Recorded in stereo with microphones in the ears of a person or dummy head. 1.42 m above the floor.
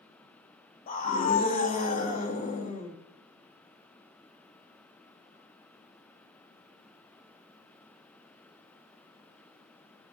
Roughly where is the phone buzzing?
I don't hear a phone buzzing.